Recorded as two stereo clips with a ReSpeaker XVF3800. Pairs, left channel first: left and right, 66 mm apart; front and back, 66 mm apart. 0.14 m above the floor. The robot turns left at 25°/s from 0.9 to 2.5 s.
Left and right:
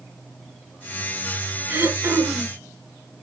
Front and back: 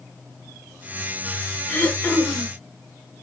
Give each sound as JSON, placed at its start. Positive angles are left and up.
{"t": 1.7, "sound": "throat clearing", "azimuth_deg": -50, "distance_m": 1.9}